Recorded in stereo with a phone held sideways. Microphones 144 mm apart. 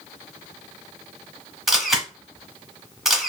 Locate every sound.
1.7 s a camera shutter: centre (ahead or behind), 0.8 m